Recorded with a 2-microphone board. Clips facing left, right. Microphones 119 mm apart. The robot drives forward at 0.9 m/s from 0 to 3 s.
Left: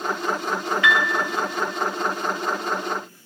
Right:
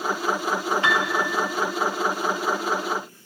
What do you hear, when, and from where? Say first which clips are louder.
0.8 s a piano: left 5 dB; 35° right (ahead or behind), 0.8 m; by 1.2 s 25° right (ahead or behind), 1.0 m